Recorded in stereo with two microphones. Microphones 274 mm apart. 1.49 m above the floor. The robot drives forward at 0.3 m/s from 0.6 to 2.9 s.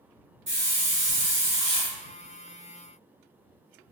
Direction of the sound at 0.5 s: 45° right (ahead or behind).